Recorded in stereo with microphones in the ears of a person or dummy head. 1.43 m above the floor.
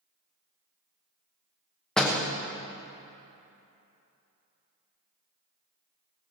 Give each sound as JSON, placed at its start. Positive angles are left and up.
{"t": 2.0, "sound": "a door slam", "side_deg": 0, "distance_m": 1.2}